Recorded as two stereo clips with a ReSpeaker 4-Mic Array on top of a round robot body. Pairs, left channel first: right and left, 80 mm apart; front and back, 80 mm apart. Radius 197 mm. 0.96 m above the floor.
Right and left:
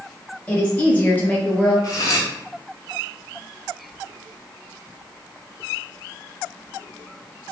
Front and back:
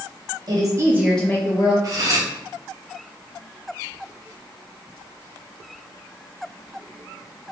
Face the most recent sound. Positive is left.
turn(degrees=-135)